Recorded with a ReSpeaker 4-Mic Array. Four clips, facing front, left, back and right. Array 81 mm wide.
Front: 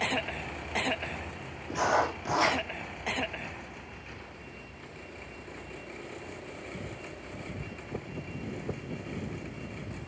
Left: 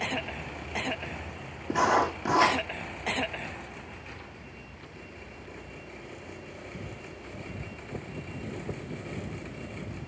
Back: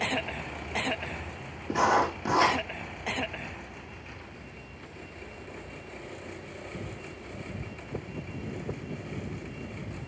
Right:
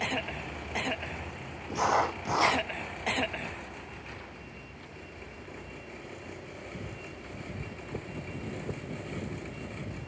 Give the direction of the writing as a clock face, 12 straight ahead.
8 o'clock.